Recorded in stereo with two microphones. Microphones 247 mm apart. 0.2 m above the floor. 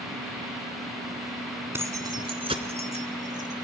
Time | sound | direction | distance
1.7 | keys jangling | 10° right (ahead or behind) | 1.1 m